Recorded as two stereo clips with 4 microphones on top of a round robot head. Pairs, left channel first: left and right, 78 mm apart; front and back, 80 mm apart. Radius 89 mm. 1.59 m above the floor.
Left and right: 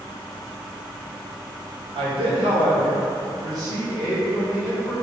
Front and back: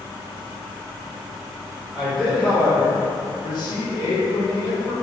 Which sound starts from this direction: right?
A man speaking, at 1.9 s.